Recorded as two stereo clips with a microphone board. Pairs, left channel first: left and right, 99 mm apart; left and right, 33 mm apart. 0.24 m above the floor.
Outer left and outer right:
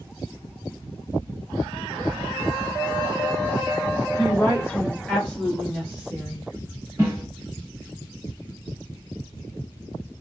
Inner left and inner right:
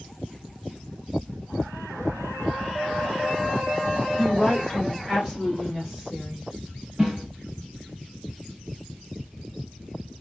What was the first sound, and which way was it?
A woman speaking, 30° left (ahead or behind).